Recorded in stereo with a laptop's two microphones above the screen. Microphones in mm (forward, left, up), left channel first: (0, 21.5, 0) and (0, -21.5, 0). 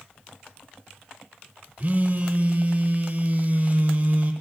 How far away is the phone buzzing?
About 0.8 m.